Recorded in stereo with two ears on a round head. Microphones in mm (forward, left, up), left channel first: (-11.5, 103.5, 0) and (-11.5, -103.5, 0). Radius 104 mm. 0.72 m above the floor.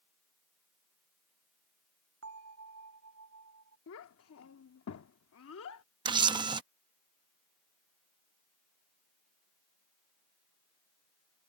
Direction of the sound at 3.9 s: 65° left (ahead or behind).